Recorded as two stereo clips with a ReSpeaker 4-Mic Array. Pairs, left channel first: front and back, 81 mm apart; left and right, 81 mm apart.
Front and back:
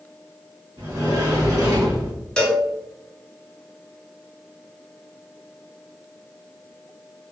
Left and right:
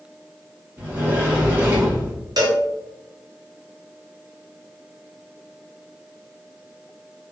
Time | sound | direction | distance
0.8 | a sliding door | 155° right | 1.8 m
2.4 | a cowbell | 75° right | 0.6 m